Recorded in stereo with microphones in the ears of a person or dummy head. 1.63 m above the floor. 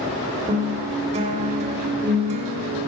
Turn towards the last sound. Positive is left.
turn(degrees=-35)  # may be behind; listen again after turning